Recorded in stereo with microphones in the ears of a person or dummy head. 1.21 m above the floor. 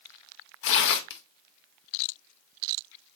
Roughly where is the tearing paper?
Left.